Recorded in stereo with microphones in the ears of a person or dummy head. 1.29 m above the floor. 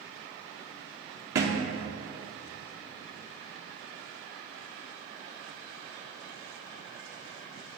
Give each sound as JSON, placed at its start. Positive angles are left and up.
{"t": 1.4, "sound": "a thud", "side_deg": -25, "distance_m": 0.9}